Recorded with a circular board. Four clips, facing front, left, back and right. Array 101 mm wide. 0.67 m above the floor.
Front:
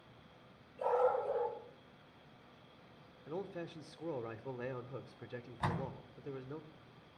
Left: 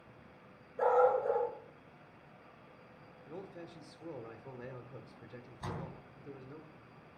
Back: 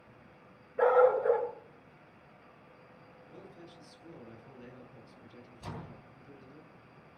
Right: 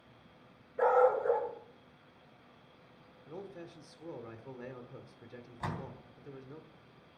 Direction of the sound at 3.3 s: 5° right.